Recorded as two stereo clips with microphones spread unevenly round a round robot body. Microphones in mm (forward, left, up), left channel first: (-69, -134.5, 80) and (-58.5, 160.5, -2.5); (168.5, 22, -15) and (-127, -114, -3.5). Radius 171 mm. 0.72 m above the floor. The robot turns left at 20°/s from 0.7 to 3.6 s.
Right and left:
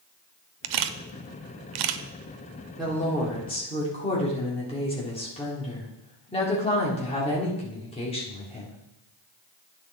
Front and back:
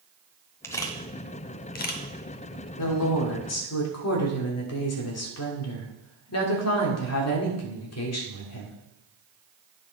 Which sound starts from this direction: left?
A camera shutter, at 0.6 s.